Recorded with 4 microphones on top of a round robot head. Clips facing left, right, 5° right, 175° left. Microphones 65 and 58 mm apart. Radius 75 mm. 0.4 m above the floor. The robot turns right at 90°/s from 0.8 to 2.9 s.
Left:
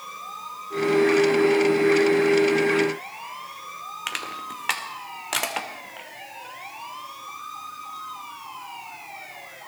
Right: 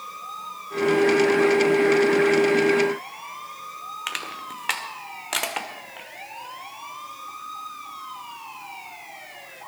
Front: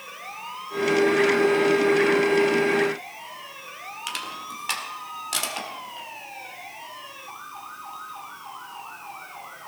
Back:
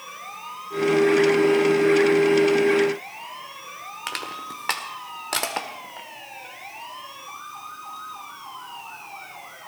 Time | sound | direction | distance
4.1 | crushing | straight behind | 2.0 m